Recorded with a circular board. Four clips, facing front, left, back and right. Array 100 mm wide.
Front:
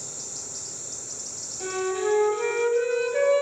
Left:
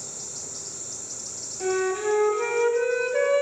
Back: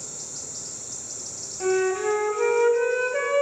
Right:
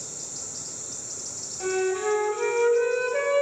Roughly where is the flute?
Behind.